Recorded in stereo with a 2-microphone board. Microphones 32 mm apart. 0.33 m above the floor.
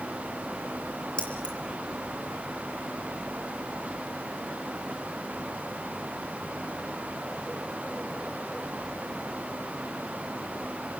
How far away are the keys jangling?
About 5 m.